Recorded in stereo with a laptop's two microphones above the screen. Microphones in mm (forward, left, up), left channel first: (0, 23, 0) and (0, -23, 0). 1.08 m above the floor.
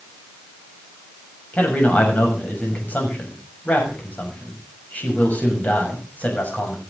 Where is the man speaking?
35° left (ahead or behind), 7 m.